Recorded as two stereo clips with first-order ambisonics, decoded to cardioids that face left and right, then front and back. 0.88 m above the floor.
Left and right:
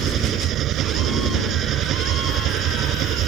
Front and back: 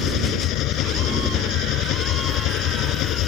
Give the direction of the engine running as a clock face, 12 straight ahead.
1 o'clock.